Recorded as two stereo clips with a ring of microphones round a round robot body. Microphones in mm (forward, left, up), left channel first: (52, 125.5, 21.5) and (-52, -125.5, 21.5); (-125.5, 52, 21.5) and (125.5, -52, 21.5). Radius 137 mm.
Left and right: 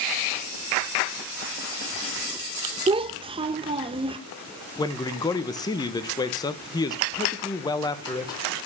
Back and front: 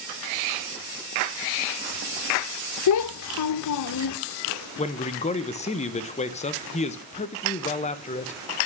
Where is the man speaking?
125° left, 0.7 m.